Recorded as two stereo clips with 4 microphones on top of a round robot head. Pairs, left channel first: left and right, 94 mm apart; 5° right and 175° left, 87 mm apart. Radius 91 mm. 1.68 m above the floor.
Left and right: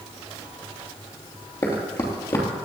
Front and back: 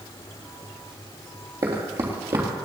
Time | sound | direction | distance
1.6 | running footsteps | 135° left | 2.5 m